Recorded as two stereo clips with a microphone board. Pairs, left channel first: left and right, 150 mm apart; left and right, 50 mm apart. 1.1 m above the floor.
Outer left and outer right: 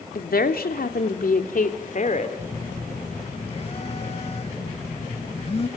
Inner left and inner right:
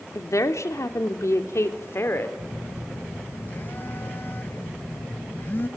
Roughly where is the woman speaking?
Left.